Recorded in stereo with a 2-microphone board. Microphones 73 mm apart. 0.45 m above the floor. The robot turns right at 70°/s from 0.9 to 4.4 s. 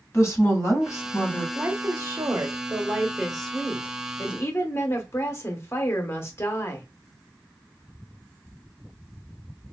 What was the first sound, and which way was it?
A woman speaking, 70° left.